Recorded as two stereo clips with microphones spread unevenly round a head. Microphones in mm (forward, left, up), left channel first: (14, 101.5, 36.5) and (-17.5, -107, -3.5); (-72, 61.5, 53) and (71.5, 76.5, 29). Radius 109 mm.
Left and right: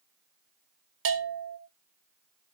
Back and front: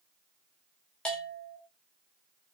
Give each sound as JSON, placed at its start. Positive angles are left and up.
{"t": 1.1, "sound": "a bell", "azimuth_deg": -85, "distance_m": 2.5}